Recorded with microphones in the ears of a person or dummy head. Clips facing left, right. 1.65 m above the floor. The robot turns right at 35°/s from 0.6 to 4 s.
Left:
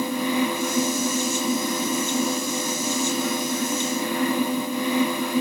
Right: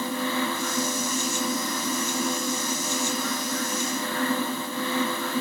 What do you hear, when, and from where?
Only background noise.